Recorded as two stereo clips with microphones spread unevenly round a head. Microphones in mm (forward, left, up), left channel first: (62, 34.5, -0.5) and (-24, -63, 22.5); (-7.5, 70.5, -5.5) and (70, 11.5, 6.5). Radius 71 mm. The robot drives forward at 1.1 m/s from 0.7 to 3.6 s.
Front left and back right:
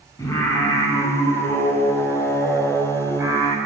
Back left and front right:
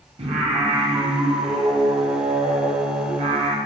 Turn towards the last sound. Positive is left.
turn(degrees=-85)